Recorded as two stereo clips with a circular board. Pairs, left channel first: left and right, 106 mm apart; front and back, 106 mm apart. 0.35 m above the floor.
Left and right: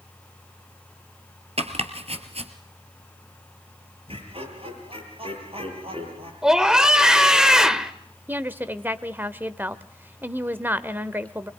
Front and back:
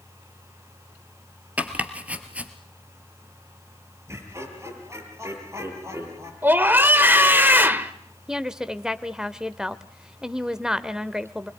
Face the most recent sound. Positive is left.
turn(degrees=-105)